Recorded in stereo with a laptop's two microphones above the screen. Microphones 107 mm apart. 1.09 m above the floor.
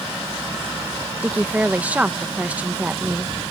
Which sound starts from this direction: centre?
A woman speaking, at 1.2 s.